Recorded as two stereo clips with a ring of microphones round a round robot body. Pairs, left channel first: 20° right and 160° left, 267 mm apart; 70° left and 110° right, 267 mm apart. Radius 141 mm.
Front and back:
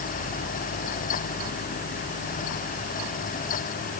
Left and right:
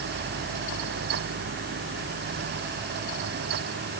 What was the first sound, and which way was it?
Only background noise.